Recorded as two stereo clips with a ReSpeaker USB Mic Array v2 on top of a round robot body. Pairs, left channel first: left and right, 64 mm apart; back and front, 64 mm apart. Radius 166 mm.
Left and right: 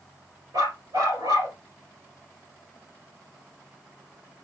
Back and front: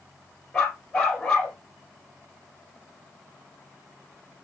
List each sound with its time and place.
0.5 s a dog barking: 95° right, 2.5 m